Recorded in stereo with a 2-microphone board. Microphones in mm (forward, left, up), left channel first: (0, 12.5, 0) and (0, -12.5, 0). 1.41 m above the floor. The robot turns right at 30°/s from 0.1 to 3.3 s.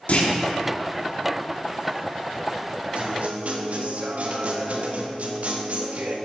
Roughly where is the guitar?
Right.